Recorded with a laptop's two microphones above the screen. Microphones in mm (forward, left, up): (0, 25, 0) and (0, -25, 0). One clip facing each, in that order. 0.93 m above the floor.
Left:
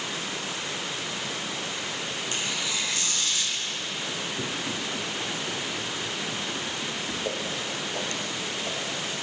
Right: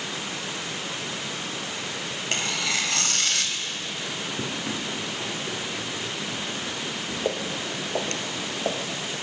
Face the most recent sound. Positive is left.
turn(degrees=-60)  # may be behind; listen again after turning